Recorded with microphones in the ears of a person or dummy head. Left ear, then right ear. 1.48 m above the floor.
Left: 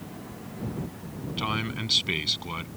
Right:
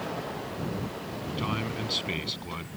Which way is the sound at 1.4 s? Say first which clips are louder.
Left 3 dB; 15° left (ahead or behind).